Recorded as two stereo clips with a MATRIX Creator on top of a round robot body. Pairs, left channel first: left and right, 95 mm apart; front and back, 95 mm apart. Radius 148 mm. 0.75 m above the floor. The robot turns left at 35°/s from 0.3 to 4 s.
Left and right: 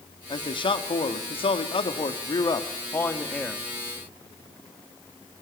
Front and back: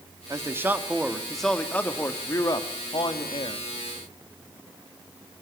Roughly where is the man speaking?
Behind left.